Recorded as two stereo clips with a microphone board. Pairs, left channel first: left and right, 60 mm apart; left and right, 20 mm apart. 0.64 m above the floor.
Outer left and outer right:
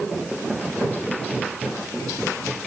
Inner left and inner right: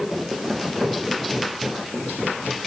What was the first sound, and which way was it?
Only background noise.